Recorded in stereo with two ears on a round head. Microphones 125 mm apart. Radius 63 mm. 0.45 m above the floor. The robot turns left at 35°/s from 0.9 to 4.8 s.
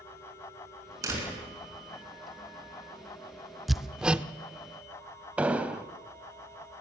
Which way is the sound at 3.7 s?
Centre (ahead or behind).